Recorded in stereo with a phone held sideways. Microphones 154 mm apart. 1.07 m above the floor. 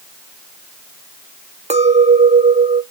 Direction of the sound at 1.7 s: 45° right (ahead or behind).